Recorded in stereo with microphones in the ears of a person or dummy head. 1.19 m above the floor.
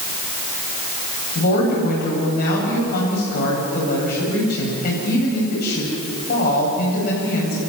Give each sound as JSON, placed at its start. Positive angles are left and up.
{"t": 1.4, "sound": "a woman speaking", "side_deg": 50, "distance_m": 7.5}